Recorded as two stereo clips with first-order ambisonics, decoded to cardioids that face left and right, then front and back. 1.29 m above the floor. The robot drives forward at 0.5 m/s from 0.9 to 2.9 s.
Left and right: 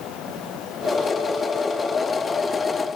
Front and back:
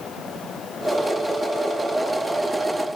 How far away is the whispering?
No whispering in this recording.